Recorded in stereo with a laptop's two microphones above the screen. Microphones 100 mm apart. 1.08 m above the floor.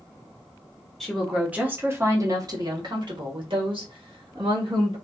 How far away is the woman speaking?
About 0.9 m.